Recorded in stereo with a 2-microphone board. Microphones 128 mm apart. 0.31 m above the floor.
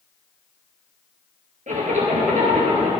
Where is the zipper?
70° right (ahead or behind), 3 m.